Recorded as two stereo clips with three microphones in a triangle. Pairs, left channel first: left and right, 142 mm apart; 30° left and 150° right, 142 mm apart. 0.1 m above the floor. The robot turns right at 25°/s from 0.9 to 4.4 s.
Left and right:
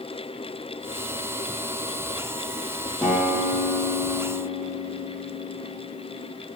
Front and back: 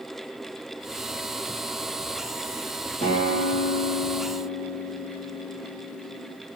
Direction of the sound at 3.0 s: 5° left.